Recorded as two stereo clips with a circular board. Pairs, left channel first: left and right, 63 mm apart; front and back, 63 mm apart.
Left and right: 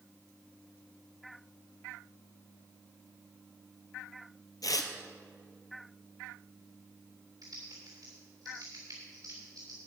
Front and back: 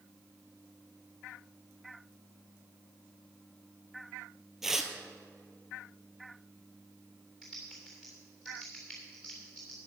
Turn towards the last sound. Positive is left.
turn(degrees=-90)